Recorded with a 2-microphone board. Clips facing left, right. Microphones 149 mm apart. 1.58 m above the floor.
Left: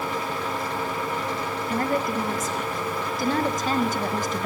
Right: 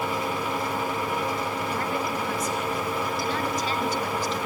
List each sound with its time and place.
1.7 s a woman speaking: 50° left (ahead or behind), 1.9 m